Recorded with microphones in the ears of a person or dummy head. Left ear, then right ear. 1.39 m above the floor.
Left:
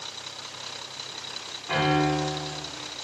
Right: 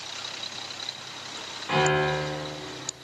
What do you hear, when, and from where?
1.7 s a piano: 15° right (ahead or behind), 1.8 m